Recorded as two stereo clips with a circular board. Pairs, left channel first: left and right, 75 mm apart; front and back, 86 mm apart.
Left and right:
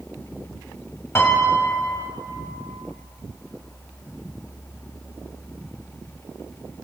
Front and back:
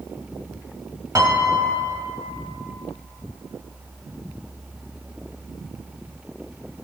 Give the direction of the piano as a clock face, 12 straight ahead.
7 o'clock.